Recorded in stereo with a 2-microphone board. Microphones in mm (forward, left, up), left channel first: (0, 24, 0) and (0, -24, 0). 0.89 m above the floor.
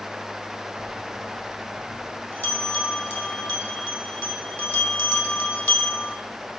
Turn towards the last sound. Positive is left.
turn(degrees=50)  # may be behind; listen again after turning